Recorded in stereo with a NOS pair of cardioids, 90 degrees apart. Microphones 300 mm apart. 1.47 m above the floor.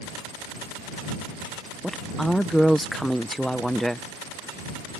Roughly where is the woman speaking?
Ahead.